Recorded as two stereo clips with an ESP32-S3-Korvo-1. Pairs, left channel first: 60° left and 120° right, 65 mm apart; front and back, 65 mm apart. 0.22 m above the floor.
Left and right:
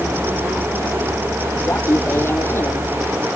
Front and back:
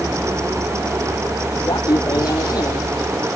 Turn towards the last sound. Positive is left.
turn(degrees=15)